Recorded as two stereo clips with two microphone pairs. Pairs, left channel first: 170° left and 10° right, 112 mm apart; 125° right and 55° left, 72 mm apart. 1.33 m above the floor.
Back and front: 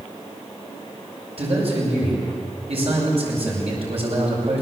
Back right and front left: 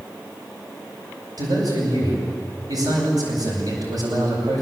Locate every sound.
1.4 s a man speaking: 25° left, 8 m